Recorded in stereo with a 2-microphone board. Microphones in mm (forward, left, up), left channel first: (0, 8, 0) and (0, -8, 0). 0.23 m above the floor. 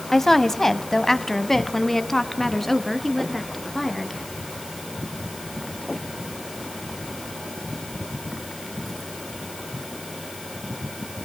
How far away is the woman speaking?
About 1.0 m.